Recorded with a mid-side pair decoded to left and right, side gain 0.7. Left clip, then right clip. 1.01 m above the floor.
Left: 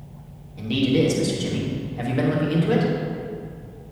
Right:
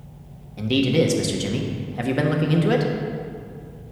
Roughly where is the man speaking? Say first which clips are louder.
Right 1 dB; ahead right.